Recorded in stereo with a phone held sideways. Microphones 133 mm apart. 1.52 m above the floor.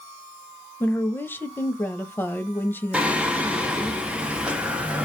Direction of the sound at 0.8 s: 15° left (ahead or behind).